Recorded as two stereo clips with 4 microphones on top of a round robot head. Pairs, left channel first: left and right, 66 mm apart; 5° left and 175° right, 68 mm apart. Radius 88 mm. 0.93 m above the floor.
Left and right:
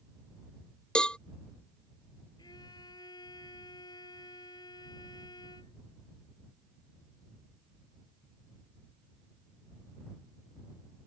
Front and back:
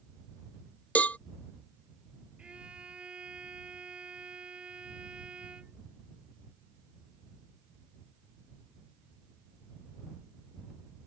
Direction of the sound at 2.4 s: 110° left.